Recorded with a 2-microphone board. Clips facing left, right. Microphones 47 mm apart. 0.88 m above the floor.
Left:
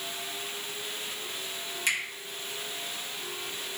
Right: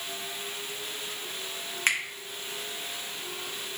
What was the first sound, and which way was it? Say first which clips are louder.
A finger snap: right 3 dB; 50° right (ahead or behind).